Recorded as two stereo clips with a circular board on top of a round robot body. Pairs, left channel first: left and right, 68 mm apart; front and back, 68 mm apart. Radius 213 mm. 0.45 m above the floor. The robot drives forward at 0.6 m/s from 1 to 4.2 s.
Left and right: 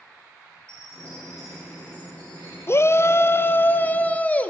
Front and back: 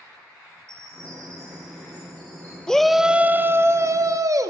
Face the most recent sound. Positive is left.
turn(degrees=155)